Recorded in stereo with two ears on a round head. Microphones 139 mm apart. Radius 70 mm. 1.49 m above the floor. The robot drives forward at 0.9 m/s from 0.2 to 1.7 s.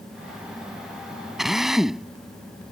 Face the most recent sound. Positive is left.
turn(degrees=-5)  # may be behind; listen again after turning